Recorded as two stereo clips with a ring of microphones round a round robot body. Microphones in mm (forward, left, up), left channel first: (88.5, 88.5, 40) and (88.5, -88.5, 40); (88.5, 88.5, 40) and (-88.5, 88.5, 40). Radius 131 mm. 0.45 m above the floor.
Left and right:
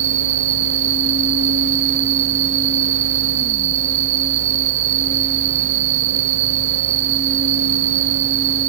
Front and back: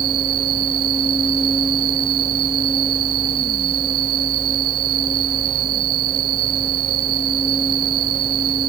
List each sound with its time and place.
0.0 s an insect: 125° right